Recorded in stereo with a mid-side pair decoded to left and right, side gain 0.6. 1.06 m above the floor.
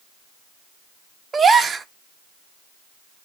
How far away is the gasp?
About 0.6 m.